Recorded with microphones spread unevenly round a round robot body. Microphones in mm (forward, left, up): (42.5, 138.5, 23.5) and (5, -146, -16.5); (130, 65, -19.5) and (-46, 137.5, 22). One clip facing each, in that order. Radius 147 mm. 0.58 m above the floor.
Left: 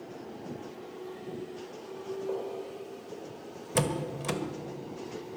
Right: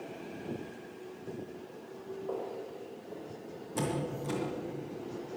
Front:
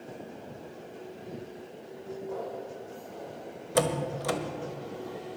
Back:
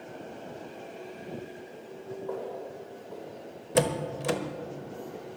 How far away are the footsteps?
About 5.5 m.